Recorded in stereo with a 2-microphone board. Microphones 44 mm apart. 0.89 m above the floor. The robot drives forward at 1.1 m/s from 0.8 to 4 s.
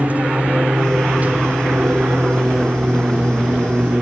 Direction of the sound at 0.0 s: 35° right (ahead or behind).